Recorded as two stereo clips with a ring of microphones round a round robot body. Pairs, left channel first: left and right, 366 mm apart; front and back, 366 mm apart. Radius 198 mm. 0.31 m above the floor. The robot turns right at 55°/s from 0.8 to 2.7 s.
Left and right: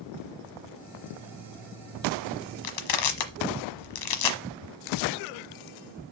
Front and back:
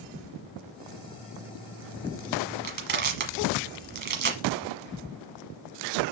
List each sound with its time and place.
2.6 s crushing: 110° left, 1.2 m; by 4.4 s 115° left, 1.2 m